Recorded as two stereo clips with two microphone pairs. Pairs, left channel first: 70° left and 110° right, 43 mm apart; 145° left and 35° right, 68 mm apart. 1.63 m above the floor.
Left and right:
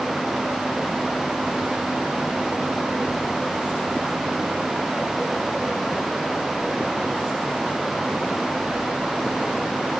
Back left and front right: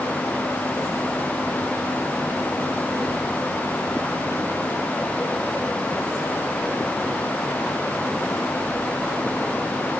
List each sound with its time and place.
Only background noise.